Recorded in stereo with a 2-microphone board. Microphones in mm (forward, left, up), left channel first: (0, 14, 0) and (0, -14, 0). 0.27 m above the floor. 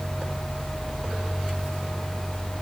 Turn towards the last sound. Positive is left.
No sound to turn to.